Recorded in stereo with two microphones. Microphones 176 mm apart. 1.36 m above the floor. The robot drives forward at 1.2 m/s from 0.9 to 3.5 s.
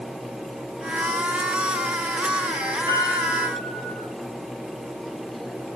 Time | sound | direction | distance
2.9 | a piano | 25° right (ahead or behind) | 7 m